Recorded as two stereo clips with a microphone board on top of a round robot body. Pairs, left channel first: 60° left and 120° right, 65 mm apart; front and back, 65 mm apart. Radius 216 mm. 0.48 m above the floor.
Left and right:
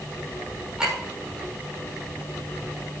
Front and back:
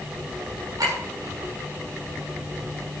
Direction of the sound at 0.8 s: 160° left.